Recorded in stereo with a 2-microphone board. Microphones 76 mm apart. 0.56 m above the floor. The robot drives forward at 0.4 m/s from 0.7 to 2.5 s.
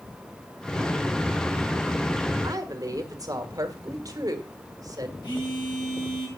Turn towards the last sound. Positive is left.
turn(degrees=85)